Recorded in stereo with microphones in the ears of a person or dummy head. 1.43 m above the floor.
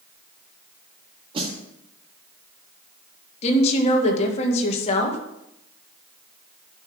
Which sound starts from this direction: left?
A woman speaking, at 3.4 s.